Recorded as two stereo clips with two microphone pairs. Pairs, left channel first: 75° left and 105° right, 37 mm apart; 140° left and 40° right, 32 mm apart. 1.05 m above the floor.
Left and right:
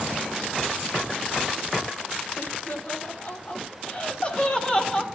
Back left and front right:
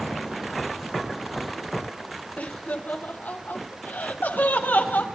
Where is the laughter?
110° left, 3 m; by 5.1 s 140° left, 3 m.